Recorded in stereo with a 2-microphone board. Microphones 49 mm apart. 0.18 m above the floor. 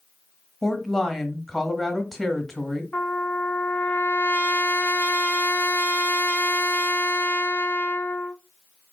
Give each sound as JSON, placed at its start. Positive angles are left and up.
{"t": 0.6, "sound": "a woman speaking", "side_deg": 5, "distance_m": 1.1}
{"t": 2.9, "sound": "a trumpet", "side_deg": 35, "distance_m": 1.1}